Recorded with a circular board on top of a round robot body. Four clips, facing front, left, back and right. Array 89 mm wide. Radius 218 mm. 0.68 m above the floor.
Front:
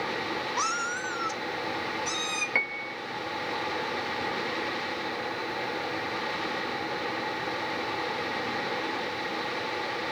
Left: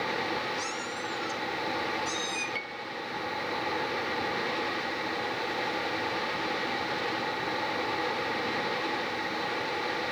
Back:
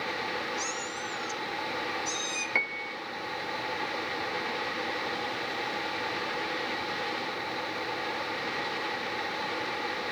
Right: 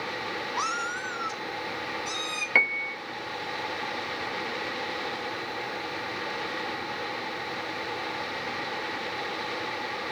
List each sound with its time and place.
0.6 s a cat meowing: 40° right, 0.9 m; by 2.5 s 35° right, 3 m
2.5 s a piano: 85° right, 1.4 m